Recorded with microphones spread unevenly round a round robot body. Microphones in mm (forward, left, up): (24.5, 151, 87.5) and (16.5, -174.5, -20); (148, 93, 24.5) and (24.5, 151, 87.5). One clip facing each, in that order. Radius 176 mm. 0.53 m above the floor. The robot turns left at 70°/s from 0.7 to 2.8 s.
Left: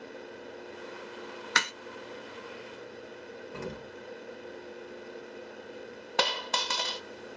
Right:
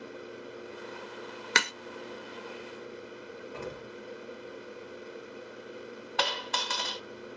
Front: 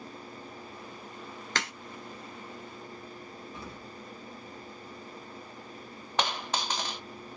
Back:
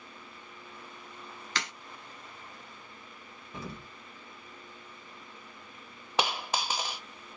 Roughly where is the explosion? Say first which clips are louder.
Left 1 dB, back 1 dB; behind.